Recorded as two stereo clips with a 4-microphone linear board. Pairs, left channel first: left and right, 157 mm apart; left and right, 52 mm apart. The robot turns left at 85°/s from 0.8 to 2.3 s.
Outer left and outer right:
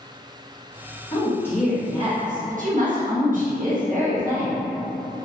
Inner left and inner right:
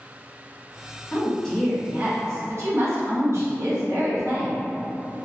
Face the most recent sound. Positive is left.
turn(degrees=-60)